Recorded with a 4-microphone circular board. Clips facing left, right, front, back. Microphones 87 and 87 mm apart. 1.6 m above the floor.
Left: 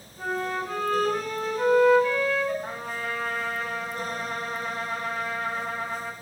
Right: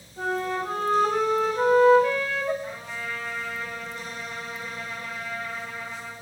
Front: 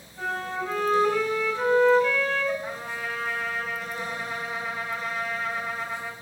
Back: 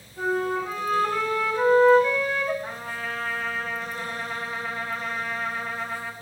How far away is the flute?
About 3.5 m.